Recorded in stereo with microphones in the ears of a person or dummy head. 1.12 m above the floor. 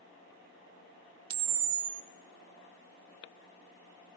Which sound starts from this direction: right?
A camera shutter, at 1.3 s.